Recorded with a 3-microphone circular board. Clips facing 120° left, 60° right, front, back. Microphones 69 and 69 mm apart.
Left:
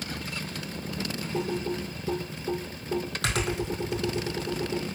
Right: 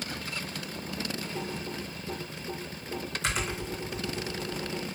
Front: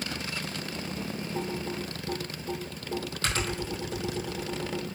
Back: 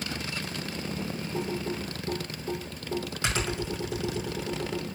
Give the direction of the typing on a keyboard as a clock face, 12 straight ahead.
8 o'clock.